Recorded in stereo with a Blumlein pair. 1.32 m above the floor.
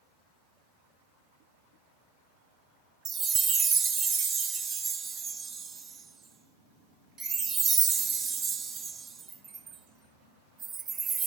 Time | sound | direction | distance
3.0 | a chime | 25° right | 0.8 m